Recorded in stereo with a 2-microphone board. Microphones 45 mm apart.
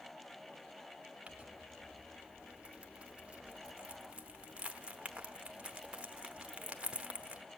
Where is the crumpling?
30° right (ahead or behind), 0.7 m.